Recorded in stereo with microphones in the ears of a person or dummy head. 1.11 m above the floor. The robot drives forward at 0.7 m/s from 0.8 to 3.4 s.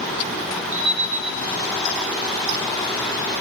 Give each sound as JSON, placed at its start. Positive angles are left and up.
{"t": 0.7, "sound": "an alarm clock", "side_deg": -10, "distance_m": 1.6}